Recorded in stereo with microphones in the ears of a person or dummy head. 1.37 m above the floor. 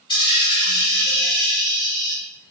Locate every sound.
0.1 s a dropped coin: 25° left (ahead or behind), 1.5 m